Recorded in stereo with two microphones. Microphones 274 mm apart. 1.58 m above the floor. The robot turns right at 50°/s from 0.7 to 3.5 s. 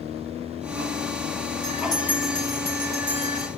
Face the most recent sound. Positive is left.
turn(degrees=-115)